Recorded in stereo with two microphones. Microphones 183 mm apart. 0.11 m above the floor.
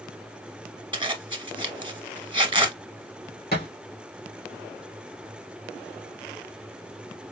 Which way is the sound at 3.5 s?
60° left (ahead or behind).